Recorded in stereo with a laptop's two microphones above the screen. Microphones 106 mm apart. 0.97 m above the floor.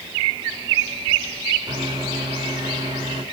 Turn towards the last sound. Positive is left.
turn(degrees=-40)  # may be behind; listen again after turning